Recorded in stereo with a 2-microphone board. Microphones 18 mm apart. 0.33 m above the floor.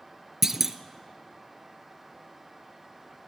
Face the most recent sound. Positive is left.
turn(degrees=-20)  # may be behind; listen again after turning